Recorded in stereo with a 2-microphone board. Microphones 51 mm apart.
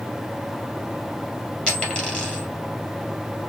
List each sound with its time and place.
1.7 s a dropped coin: 20° left (ahead or behind), 2.5 m